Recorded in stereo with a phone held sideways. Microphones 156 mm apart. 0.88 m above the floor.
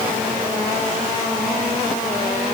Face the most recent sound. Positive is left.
No sound to turn to.